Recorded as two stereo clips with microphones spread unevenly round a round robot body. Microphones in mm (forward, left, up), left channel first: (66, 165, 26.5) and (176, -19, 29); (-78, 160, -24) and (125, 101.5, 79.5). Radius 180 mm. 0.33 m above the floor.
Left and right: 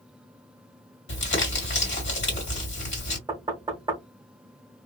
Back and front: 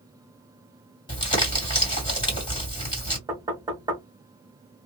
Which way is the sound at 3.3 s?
120° right.